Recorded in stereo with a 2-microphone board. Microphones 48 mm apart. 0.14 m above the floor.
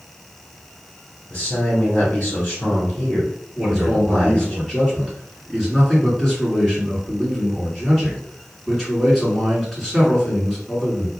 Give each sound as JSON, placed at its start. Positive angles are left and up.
{"t": 1.3, "sound": "a man speaking", "side_deg": 25, "distance_m": 1.4}
{"t": 3.5, "sound": "a man speaking", "side_deg": 0, "distance_m": 2.0}